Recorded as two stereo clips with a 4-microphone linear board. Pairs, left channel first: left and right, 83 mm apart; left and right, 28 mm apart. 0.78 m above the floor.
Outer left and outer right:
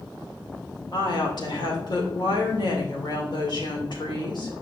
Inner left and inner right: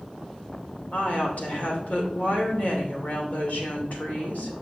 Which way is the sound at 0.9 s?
60° left (ahead or behind).